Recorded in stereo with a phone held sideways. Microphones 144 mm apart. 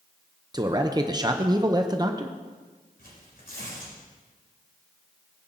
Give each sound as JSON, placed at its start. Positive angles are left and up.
{"t": 0.5, "sound": "a man speaking", "side_deg": -25, "distance_m": 0.7}
{"t": 3.0, "sound": "tearing paper", "side_deg": 80, "distance_m": 4.0}